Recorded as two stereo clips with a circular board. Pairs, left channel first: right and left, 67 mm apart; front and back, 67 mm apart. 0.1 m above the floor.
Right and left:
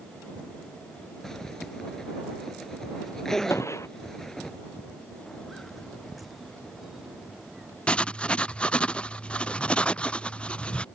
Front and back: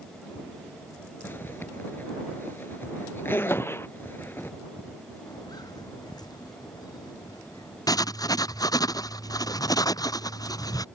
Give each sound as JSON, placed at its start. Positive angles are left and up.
{"t": 1.2, "sound": "a zipper", "azimuth_deg": -15}
{"t": 3.5, "sound": "a gunshot", "azimuth_deg": -50}
{"t": 5.3, "sound": "footsteps", "azimuth_deg": -10}
{"t": 7.9, "sound": "writing", "azimuth_deg": -20}